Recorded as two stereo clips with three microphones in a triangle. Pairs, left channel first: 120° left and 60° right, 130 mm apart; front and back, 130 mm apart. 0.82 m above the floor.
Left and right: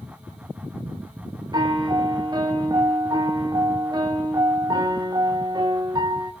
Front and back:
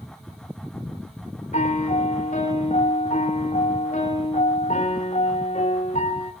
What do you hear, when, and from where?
1.5 s a piano: 5° right, 3 m